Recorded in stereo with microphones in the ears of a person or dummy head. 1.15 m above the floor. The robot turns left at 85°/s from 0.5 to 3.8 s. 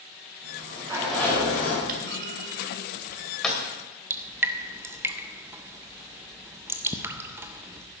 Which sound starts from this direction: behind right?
A sliding door, at 0.4 s.